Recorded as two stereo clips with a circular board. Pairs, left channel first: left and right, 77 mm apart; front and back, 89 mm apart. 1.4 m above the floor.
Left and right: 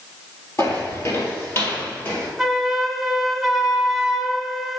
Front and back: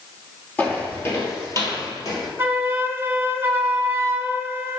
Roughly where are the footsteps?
Ahead left.